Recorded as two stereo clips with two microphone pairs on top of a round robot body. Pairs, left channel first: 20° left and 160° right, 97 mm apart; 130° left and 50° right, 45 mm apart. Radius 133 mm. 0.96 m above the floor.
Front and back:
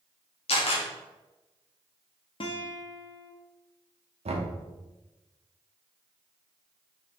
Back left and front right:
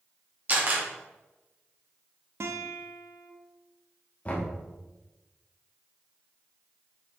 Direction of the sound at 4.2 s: 170° right.